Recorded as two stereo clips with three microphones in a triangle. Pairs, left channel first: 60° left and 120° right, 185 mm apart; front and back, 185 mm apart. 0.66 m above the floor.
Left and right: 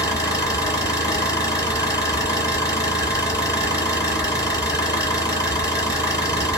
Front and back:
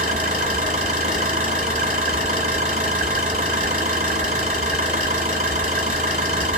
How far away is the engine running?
About 2.5 m.